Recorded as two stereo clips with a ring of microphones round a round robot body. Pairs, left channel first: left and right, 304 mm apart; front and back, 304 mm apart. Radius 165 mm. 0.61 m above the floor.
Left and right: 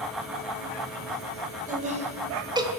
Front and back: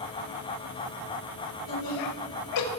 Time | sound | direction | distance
1.7 | laughter | 25° right | 4 m